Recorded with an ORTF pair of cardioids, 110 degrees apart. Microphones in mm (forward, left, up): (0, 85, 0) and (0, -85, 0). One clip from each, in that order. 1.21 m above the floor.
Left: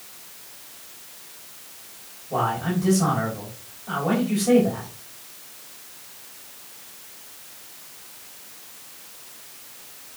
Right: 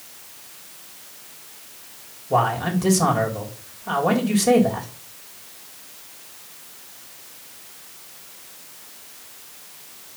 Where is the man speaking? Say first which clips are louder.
Right 4 dB; 50° right, 3.5 m.